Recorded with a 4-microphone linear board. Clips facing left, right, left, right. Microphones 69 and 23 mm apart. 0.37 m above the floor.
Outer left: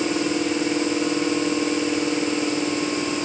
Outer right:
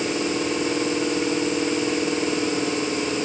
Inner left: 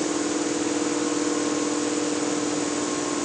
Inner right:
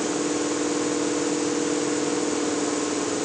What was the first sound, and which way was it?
Only background noise.